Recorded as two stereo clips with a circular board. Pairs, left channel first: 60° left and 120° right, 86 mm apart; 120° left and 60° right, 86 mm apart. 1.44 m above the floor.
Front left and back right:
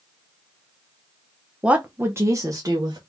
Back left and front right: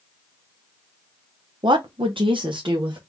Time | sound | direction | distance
1.6 | a woman speaking | 45° right | 0.8 m